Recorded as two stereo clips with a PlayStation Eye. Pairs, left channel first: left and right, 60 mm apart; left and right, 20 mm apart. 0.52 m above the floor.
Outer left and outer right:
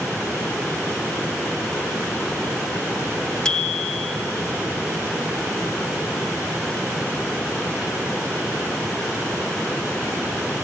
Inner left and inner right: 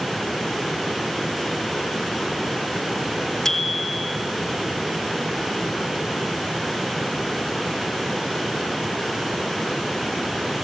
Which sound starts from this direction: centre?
A bicycle bell, at 3.5 s.